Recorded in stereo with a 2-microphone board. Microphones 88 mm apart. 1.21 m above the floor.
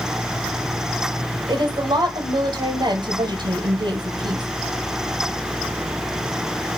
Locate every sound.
1.5 s a woman speaking: 55° right (ahead or behind), 0.9 m